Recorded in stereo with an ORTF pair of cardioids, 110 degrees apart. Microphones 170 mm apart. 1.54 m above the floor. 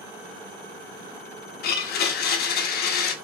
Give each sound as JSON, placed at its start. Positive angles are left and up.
{"t": 1.6, "sound": "a blender", "azimuth_deg": 70, "distance_m": 0.6}